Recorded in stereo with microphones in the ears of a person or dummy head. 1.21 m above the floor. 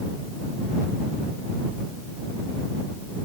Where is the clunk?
No clunk in this recording.